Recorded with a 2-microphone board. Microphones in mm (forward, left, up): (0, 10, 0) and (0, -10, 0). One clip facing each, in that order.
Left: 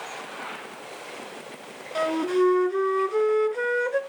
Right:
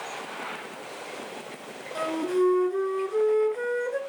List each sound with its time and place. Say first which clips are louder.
1.9 s a flute: left 3 dB; 30° left (ahead or behind), 0.8 m